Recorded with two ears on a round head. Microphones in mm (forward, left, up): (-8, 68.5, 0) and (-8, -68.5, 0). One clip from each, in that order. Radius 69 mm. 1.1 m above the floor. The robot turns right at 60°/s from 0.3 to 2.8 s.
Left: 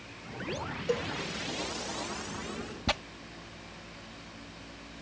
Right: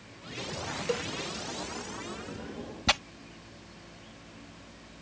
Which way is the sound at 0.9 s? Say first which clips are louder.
Left 1 dB; 25° right (ahead or behind).